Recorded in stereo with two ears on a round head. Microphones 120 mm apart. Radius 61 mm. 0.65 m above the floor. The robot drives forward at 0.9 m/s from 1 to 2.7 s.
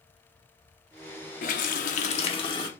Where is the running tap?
60° left (ahead or behind), 0.7 m; by 2.7 s 35° left (ahead or behind), 1.1 m.